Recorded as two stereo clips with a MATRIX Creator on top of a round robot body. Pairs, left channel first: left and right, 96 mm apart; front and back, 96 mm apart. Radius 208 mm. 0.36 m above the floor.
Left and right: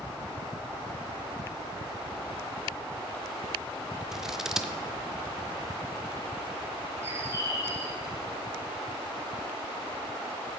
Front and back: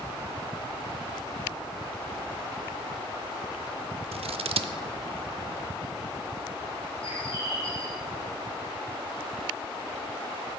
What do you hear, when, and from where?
4.1 s scissors: 175° right, 0.6 m
7.0 s a bird: 25° right, 2.5 m